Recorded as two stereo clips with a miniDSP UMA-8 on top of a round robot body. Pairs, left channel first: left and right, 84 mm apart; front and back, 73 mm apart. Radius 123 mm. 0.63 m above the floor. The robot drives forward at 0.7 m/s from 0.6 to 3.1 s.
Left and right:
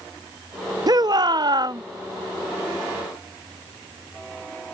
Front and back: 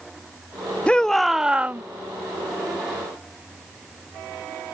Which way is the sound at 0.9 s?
70° right.